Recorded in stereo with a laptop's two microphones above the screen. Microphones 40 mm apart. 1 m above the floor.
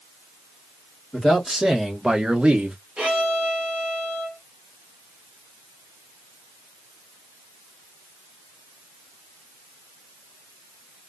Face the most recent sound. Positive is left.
turn(degrees=-30)  # may be behind; listen again after turning